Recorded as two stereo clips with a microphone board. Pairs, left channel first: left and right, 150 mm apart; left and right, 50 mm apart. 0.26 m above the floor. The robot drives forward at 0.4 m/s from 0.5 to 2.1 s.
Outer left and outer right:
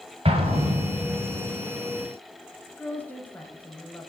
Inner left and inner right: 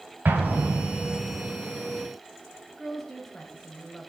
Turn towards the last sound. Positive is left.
turn(degrees=10)  # may be behind; listen again after turning